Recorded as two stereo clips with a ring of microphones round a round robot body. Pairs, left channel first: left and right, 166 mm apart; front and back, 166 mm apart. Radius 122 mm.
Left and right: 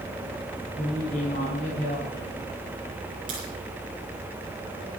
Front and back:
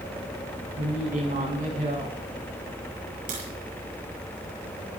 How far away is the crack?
About 8 m.